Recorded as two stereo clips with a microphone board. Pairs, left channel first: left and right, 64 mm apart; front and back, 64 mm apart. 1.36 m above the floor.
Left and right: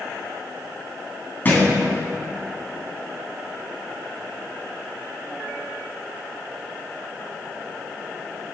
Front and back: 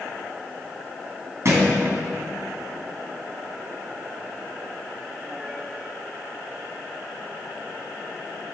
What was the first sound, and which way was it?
A thud, 145° left.